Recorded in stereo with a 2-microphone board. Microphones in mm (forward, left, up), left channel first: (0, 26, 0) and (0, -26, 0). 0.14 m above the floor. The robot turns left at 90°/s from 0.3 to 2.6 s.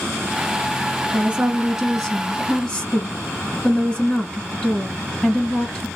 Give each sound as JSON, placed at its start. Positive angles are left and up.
{"t": 1.1, "sound": "a woman speaking", "side_deg": -20, "distance_m": 1.6}